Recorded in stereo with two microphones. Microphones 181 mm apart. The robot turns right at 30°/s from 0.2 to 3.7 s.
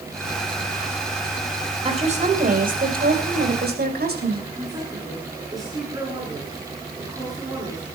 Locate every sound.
1.9 s a woman speaking: 140° right, 3 m; by 4.4 s 85° right, 3 m
4.5 s a woman speaking: 20° right (ahead or behind), 7.5 m